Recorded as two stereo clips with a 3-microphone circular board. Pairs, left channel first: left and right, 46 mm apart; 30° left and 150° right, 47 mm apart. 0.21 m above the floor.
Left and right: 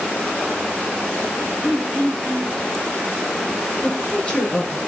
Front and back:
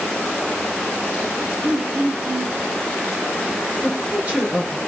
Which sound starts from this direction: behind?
Throat clearing, at 1.6 s.